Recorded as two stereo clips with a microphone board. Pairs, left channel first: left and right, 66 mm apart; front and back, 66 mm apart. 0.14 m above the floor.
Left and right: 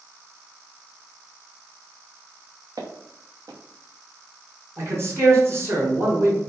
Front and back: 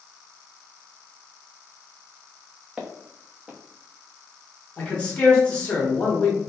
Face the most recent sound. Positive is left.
turn(degrees=-65)